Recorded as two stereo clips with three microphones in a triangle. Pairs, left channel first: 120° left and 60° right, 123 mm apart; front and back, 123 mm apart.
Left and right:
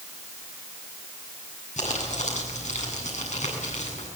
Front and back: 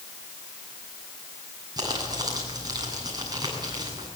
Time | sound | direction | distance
1.8 | crumpling | 125° left | 8.5 m